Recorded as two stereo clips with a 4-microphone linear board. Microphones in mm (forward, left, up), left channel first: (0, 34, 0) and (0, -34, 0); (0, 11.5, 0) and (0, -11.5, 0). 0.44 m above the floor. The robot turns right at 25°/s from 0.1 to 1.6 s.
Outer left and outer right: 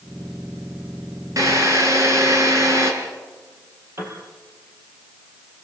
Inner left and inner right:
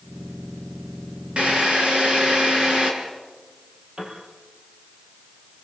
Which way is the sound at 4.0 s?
40° right (ahead or behind).